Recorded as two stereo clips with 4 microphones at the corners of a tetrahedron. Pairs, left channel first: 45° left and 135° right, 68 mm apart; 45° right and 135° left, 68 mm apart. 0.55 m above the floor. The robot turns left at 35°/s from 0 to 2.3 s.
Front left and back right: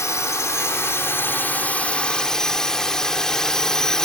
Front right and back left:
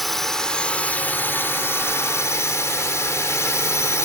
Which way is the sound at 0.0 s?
45° left.